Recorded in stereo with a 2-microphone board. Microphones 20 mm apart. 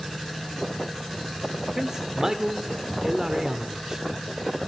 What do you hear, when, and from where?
1.8 s a man speaking: 30° right (ahead or behind), 1.4 m